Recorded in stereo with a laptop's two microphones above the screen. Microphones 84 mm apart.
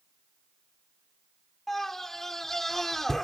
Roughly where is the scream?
Centre.